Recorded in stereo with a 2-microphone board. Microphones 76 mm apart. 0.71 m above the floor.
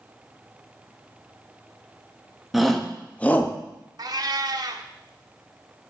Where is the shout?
Centre (ahead or behind), 1.0 m; by 3.5 s 30° left (ahead or behind), 1.0 m.